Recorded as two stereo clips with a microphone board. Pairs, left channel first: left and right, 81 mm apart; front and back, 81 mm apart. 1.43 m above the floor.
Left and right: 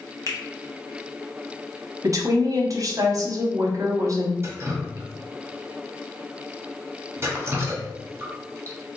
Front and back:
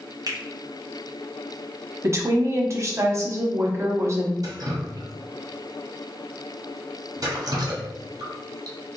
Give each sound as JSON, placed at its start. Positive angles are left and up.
{"t": 0.3, "sound": "a finger snap", "azimuth_deg": 140, "distance_m": 0.7}
{"t": 2.0, "sound": "a woman speaking", "azimuth_deg": -130, "distance_m": 0.8}
{"t": 4.4, "sound": "dripping", "azimuth_deg": -145, "distance_m": 0.8}